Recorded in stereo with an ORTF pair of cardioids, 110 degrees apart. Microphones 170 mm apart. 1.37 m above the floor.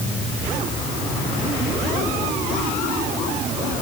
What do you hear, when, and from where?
Only background noise.